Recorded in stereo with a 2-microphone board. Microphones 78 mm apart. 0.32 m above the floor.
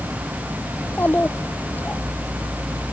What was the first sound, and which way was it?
A child speaking, 25° left (ahead or behind).